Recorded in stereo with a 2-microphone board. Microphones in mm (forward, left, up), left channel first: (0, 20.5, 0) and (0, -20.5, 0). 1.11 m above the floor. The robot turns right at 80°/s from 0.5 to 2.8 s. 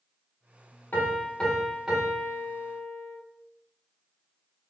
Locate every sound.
0.9 s a piano: 115° left, 1.8 m; by 3.2 s 95° right, 1.8 m